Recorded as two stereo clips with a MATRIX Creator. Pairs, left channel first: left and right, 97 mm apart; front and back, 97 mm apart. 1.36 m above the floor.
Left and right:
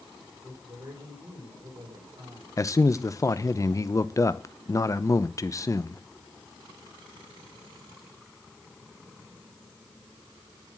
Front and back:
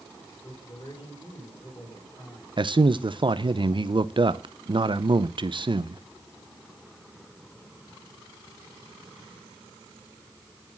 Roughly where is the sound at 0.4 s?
Ahead right.